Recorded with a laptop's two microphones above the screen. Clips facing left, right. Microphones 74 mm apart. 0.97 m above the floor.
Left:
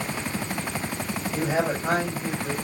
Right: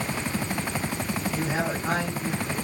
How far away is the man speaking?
About 6.5 m.